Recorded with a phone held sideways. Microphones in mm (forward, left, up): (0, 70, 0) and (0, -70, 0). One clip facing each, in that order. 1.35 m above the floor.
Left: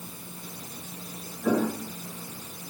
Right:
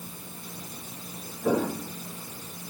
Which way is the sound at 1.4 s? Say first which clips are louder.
Even; 20° right (ahead or behind).